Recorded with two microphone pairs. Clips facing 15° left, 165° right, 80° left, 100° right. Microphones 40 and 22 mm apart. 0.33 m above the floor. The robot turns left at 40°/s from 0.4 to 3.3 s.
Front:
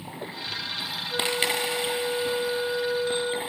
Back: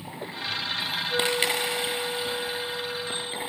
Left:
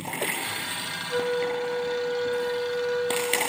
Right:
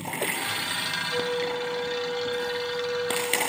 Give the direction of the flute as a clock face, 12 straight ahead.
8 o'clock.